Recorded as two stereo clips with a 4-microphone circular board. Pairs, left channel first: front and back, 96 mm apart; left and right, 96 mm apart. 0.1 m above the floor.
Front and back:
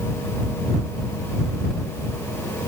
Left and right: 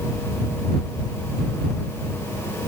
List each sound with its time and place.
Only background noise.